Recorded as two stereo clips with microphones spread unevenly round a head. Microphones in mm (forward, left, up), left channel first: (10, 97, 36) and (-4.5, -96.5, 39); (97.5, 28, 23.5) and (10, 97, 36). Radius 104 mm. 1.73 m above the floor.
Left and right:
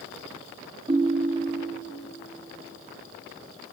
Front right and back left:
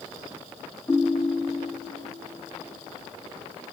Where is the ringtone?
120° right, 0.6 m.